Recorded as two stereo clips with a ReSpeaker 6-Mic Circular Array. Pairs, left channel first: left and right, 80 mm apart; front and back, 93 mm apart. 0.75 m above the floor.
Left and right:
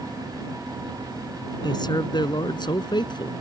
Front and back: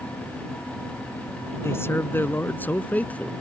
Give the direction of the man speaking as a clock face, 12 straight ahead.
10 o'clock.